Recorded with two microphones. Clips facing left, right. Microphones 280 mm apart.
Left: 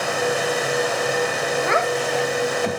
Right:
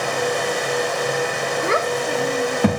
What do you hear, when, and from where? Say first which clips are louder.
1.6 s a child speaking: right 3 dB; 35° right (ahead or behind), 1.4 m; by 2.8 s 70° right (ahead or behind), 1.6 m